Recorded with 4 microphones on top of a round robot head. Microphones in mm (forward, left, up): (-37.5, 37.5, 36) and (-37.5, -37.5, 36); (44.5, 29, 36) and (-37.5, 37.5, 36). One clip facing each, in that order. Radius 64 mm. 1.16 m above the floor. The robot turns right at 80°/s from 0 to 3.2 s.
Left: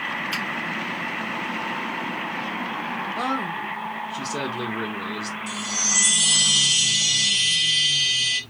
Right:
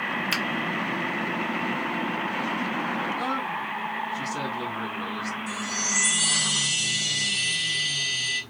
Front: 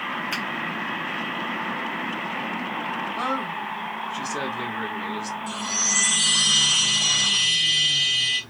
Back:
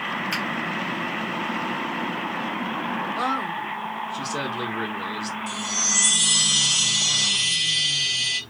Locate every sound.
0.3 s a finger snap: 105° right, 1.0 m; by 0.4 s 95° right, 1.0 m
3.2 s a man speaking: 95° left, 1.3 m
5.5 s a chime: 110° left, 1.1 m